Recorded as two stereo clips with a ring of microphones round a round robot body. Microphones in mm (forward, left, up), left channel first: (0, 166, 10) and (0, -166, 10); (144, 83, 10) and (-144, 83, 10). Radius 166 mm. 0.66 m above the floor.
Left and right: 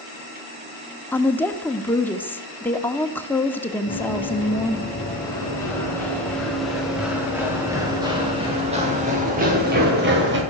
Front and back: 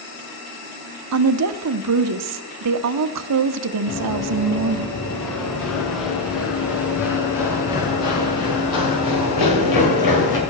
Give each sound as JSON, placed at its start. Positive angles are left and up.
{"t": 1.1, "sound": "a woman speaking", "azimuth_deg": 175, "distance_m": 1.0}
{"t": 3.9, "sound": "running footsteps", "azimuth_deg": 20, "distance_m": 7.5}